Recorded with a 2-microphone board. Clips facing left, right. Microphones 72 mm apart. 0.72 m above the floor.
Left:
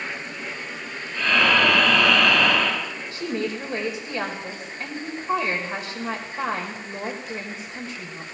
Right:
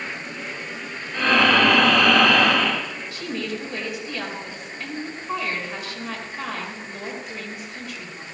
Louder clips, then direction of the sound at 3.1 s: Left 3 dB; 30° left (ahead or behind).